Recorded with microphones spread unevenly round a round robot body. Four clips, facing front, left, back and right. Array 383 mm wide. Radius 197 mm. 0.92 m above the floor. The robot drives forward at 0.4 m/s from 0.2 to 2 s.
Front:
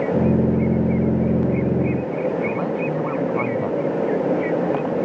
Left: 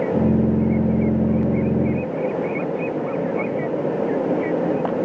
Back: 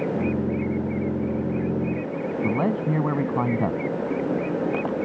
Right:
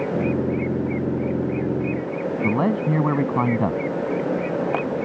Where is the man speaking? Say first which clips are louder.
Right 2 dB, front 1 dB; 120° right.